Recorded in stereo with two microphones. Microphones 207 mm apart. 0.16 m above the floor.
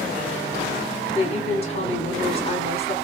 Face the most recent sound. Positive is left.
turn(degrees=25)  # may be behind; listen again after turning